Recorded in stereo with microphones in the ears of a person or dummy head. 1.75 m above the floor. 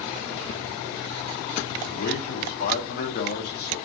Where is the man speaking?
40° left (ahead or behind), 0.9 m.